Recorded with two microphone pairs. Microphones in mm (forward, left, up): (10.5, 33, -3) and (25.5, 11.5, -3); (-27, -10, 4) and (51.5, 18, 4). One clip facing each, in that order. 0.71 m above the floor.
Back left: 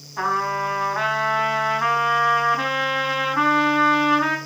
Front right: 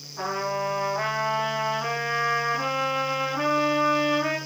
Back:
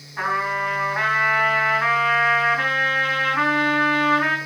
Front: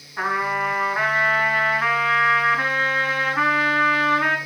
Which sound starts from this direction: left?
A trumpet, at 0.2 s.